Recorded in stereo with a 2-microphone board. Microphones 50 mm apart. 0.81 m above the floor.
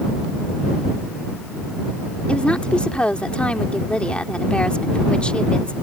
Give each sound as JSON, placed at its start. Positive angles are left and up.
{"t": 2.3, "sound": "a woman speaking", "side_deg": 20}